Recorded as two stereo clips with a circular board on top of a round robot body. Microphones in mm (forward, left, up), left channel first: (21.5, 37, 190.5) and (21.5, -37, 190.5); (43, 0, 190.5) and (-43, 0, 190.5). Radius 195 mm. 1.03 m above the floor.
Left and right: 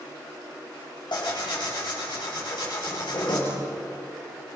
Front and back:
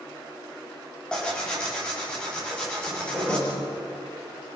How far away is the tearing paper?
About 6.5 m.